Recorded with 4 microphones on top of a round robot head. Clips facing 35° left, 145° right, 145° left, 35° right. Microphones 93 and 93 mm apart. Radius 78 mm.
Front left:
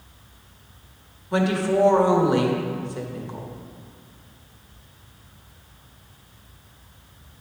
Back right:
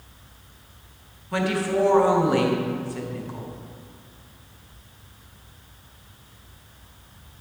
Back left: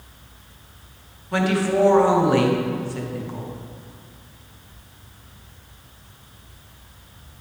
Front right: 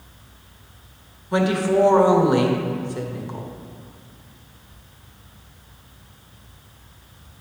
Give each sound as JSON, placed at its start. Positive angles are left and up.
{"t": 1.3, "sound": "a woman speaking", "azimuth_deg": 5, "distance_m": 1.3}